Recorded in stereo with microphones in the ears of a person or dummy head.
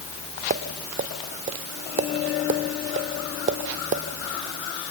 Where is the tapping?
40° right (ahead or behind), 0.9 m.